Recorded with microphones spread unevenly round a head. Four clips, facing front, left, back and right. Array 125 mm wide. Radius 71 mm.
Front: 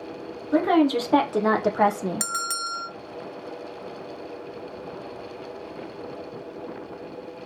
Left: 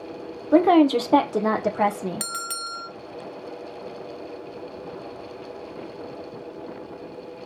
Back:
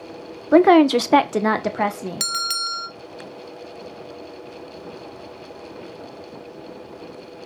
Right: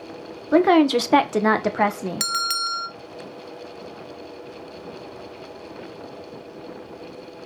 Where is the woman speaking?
160° right, 0.9 m; by 2.3 s 60° right, 1.2 m.